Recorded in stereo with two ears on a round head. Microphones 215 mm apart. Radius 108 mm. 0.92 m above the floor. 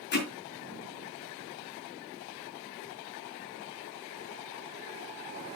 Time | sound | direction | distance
0.1 | hammering | 45° left (ahead or behind) | 4.5 m